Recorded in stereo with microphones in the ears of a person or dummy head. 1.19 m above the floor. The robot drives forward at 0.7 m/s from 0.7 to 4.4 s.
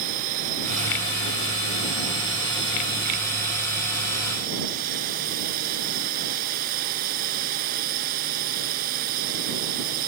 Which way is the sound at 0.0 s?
45° right (ahead or behind).